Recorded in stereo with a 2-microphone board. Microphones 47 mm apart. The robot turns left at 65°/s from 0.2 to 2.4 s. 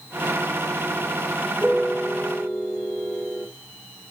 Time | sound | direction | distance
1.6 | a piano | 145° right | 2.5 m